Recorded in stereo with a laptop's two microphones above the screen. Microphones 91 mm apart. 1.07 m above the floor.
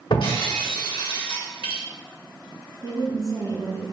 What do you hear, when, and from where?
0.1 s breaking glass: 70° left (ahead or behind), 1.3 m
2.8 s a woman speaking: 40° right (ahead or behind), 1.2 m